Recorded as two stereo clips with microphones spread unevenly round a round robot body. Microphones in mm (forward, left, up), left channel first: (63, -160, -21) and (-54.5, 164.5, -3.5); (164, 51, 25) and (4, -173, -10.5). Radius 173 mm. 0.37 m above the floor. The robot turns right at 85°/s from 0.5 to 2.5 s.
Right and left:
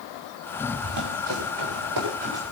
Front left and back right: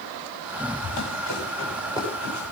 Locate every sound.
0.8 s running footsteps: 65° left, 9.5 m; by 2.5 s 160° right, 8.5 m